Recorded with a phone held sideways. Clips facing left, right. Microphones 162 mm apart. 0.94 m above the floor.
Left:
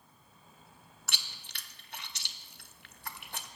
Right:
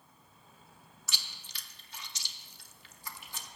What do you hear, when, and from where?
1.1 s chewing: 60° left (ahead or behind), 0.8 m